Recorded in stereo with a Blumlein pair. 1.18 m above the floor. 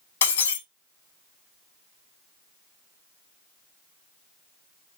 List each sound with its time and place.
0.2 s breaking glass: 65° left, 1.2 m